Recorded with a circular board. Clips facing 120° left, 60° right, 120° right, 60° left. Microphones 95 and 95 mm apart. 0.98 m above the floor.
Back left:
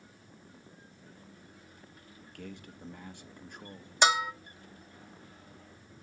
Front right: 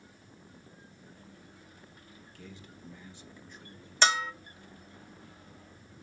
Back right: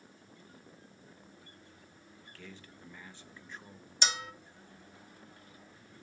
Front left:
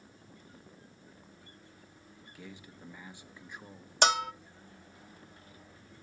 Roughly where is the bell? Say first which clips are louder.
Back left 2 dB, front left 9 dB; ahead left.